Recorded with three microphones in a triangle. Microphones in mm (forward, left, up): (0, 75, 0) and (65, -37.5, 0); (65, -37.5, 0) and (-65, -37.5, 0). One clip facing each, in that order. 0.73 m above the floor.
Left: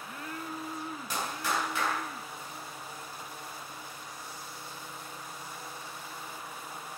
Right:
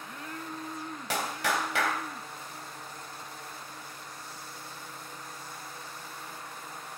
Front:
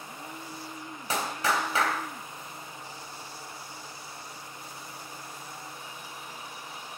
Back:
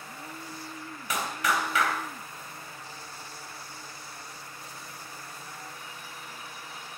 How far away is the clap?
About 3 m.